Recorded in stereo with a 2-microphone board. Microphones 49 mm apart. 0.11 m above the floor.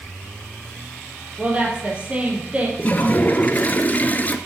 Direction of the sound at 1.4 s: 25° right (ahead or behind).